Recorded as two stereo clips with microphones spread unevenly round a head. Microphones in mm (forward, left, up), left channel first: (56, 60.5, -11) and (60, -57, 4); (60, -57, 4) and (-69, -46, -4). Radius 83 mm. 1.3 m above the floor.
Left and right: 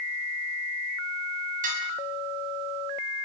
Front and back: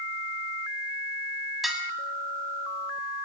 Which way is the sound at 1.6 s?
95° right.